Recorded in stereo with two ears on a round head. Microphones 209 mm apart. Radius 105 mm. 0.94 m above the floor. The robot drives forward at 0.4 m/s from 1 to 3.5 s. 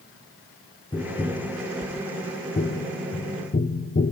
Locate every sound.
0.9 s tapping: 20° left (ahead or behind), 1.3 m; by 4.1 s 35° left (ahead or behind), 0.7 m